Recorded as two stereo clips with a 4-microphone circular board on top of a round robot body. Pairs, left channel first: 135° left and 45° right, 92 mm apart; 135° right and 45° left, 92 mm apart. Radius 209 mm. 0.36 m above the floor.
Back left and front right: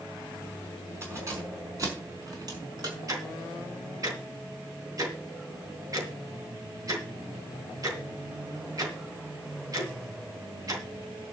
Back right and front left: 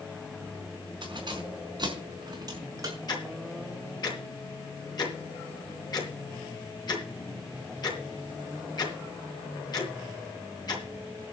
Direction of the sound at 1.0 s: 15° left.